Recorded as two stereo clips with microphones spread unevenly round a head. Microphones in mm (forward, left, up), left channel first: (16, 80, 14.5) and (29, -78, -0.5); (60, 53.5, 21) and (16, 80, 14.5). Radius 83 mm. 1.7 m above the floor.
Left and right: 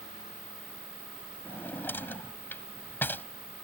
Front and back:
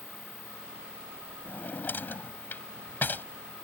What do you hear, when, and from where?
1.4 s a drawer: 15° left